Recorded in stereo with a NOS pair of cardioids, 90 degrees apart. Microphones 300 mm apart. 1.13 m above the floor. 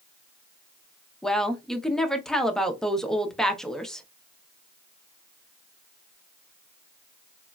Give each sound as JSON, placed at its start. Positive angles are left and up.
{"t": 1.2, "sound": "a woman speaking", "azimuth_deg": 0, "distance_m": 0.7}